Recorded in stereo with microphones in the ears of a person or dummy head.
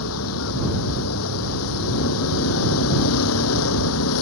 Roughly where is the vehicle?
Left.